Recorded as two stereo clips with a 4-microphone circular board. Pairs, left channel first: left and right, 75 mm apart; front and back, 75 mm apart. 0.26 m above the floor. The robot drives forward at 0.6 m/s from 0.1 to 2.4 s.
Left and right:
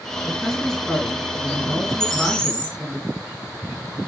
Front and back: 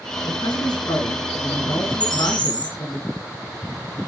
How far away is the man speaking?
About 4.5 m.